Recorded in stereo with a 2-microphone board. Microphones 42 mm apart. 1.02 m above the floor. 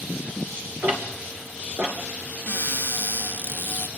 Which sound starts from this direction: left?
A cupboard door, at 2.5 s.